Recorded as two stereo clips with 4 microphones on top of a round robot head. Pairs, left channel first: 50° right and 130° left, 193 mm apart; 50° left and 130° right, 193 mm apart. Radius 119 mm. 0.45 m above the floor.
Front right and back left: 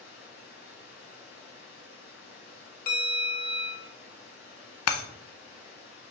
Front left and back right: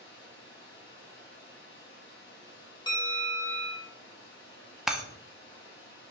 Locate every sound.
0.0 s running water: 10° right, 4 m
2.9 s a bell: 15° right, 2.5 m
4.9 s breaking glass: 40° right, 0.9 m